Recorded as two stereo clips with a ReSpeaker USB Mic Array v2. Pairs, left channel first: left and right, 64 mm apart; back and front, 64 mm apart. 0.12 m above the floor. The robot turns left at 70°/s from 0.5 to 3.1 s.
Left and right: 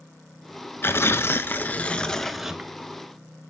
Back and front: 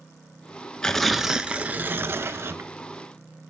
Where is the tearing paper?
110° left, 0.5 m; by 2.7 s 20° right, 0.5 m.